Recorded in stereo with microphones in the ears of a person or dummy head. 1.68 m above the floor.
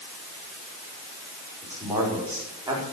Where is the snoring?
No snoring in this recording.